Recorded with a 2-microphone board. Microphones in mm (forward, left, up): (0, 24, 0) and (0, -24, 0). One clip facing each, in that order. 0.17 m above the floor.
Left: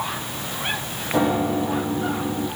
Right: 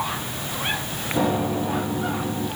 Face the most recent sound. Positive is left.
turn(degrees=60)  # may be behind; listen again after turning